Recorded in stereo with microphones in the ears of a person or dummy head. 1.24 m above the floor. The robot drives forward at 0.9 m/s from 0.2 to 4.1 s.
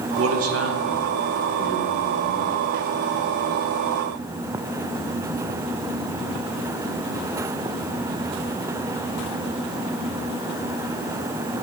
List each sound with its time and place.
0.2 s a man speaking: 65° right (ahead or behind), 1.1 m; by 2.5 s 25° right (ahead or behind), 2.5 m